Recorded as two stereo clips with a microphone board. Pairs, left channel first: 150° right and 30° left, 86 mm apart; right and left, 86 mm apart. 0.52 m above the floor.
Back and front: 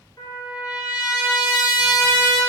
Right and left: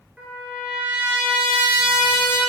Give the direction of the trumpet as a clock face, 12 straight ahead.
6 o'clock.